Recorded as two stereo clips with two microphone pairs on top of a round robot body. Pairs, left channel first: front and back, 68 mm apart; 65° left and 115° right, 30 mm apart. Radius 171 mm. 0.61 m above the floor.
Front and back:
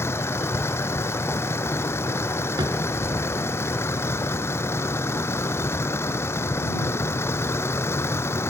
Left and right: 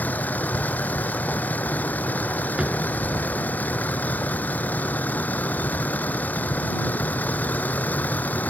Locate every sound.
0.0 s a vehicle: 50° left
2.6 s a drawer: 175° right